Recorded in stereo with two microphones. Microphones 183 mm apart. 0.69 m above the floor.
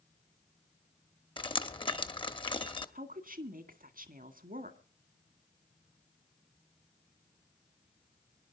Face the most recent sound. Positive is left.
turn(degrees=-55)  # may be behind; listen again after turning